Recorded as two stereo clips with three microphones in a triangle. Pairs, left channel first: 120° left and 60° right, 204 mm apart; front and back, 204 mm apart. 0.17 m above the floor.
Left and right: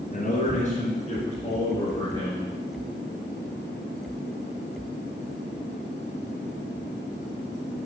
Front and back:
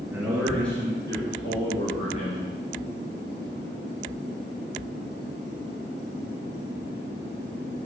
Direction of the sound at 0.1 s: 105° left.